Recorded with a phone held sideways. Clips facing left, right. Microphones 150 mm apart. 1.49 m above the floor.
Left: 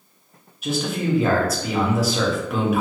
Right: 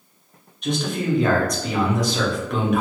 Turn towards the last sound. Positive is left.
turn(degrees=5)  # may be behind; listen again after turning